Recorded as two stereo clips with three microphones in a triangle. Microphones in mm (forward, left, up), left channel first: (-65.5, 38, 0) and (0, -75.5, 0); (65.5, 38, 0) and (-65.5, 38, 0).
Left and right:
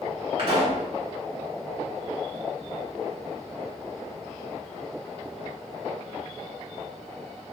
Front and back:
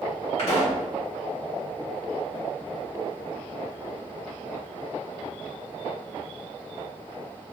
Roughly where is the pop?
Ahead right.